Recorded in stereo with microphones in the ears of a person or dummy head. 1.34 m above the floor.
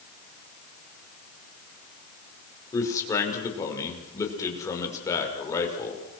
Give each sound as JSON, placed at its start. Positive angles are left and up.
{"t": 2.7, "sound": "a man speaking", "side_deg": 20, "distance_m": 5.5}